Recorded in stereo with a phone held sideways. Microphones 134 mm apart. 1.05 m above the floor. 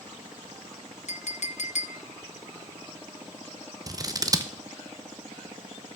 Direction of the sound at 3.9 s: 25° right (ahead or behind).